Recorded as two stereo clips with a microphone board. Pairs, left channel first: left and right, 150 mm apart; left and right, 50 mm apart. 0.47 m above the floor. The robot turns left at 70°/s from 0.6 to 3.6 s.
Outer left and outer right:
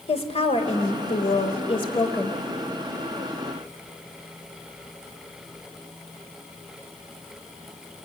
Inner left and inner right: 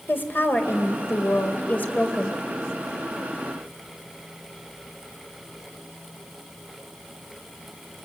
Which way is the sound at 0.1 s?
125° left.